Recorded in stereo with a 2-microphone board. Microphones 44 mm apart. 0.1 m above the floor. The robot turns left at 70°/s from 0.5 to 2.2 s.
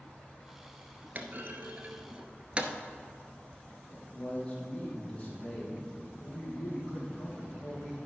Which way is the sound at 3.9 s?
25° left (ahead or behind).